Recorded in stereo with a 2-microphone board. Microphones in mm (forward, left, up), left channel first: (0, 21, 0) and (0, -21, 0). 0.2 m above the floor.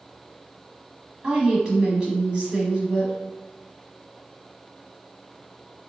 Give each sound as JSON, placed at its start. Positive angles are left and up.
{"t": 1.2, "sound": "a woman speaking", "side_deg": -25, "distance_m": 1.1}